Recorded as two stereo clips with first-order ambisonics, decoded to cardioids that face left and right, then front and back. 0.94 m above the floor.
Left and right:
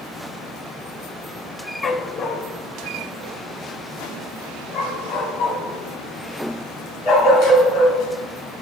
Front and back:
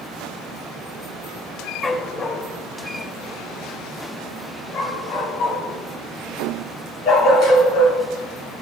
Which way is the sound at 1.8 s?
65° left.